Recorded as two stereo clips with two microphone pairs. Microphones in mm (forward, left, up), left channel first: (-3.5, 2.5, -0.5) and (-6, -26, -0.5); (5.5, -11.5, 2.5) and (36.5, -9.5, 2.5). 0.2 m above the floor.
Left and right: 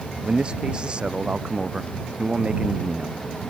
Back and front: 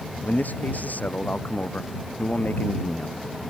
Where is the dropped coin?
No dropped coin in this recording.